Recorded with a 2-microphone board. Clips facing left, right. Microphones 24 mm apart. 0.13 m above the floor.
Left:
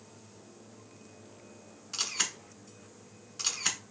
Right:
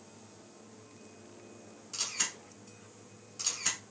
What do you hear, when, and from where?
1.9 s a camera shutter: 30° left (ahead or behind), 0.9 m